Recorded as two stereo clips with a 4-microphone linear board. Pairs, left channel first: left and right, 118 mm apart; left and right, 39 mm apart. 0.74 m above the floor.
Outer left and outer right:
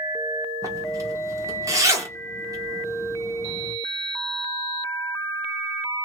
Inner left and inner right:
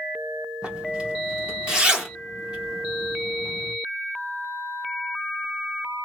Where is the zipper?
25° right (ahead or behind), 1.3 m.